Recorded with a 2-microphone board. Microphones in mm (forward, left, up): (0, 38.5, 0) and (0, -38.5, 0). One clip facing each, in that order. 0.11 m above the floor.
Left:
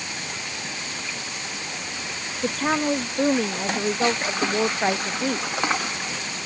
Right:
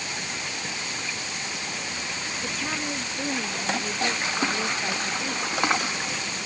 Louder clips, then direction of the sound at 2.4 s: Left 10 dB; 50° left (ahead or behind).